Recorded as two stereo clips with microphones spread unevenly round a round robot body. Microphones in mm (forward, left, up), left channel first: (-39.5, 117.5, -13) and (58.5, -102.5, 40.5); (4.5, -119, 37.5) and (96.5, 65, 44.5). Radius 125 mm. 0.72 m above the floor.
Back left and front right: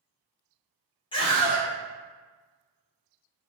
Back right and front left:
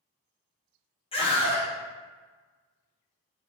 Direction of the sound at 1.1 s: Straight behind.